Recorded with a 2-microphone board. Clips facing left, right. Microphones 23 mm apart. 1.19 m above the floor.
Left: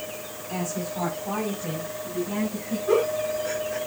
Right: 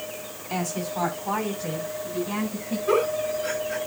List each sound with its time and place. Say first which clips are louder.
0.5 s a woman speaking: right 2 dB; 75° right (ahead or behind), 3.5 m; by 2.8 s 85° right, 6.5 m
2.9 s a giggle: even; 85° right, 7 m